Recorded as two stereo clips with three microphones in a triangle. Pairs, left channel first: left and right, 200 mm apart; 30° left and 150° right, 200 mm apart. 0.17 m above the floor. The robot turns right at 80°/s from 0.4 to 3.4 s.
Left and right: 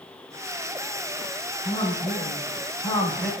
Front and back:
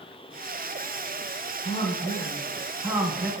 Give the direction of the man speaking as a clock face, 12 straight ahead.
11 o'clock.